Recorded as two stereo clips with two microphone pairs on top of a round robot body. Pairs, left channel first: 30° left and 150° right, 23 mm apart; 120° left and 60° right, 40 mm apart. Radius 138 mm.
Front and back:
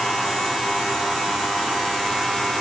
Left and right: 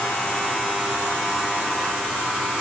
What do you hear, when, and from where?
Only background noise.